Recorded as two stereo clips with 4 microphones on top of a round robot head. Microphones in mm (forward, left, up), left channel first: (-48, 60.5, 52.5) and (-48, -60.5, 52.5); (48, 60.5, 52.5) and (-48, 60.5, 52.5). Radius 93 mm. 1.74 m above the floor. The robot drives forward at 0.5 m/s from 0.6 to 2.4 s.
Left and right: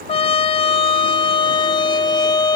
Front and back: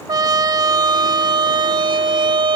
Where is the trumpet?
130° left; by 2.6 s 145° left.